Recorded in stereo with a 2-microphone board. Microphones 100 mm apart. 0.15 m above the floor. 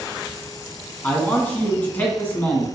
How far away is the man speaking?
About 1.0 m.